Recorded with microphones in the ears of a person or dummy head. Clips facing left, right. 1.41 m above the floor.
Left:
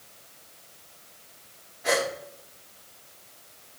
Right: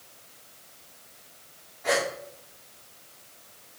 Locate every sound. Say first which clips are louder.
1.8 s a gasp: left 1 dB; 5° left (ahead or behind), 2.5 m